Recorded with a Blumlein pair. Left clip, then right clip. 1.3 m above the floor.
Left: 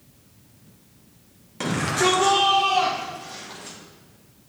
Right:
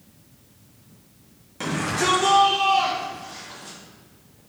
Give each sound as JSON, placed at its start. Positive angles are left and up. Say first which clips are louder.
{"t": 1.6, "sound": "a shout", "louder": "left 2 dB", "azimuth_deg": 15, "distance_m": 1.8}